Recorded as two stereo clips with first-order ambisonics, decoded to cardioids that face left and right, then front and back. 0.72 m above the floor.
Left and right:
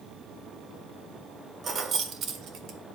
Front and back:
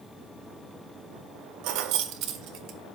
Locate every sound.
1.6 s keys jangling: 160° right, 1.2 m; by 2.8 s 135° right, 1.7 m